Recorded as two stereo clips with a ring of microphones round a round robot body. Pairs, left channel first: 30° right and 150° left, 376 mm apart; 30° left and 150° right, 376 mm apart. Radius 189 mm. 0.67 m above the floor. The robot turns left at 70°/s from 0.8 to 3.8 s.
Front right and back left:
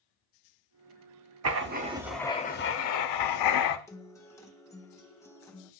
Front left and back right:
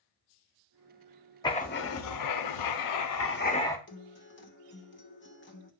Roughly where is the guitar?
Ahead left.